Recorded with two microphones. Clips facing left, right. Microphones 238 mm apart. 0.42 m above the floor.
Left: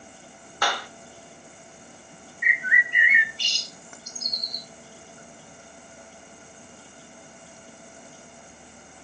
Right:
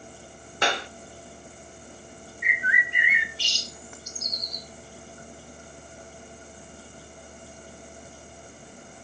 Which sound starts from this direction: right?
A clap, at 0.6 s.